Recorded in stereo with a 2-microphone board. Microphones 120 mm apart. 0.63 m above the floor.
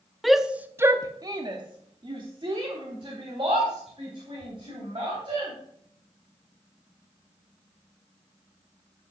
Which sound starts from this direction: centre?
A shout, at 0.2 s.